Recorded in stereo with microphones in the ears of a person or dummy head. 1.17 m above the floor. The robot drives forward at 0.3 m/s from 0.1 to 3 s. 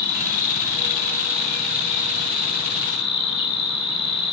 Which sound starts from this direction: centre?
An insect, at 0.0 s.